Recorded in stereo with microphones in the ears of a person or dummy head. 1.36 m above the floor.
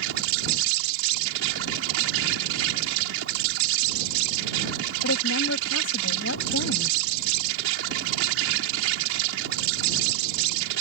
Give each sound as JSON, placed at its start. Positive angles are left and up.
{"t": 0.0, "sound": "an insect", "side_deg": -75}
{"t": 5.0, "sound": "a woman speaking", "side_deg": 85}